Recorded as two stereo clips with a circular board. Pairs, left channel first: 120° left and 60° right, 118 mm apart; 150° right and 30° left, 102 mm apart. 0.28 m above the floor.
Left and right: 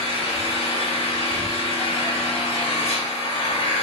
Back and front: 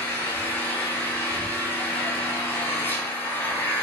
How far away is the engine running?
About 0.8 m.